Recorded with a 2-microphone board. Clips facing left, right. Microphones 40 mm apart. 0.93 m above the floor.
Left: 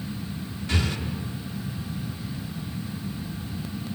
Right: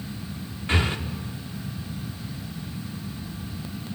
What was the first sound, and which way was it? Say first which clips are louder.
Breathing: right 3 dB; 35° right (ahead or behind).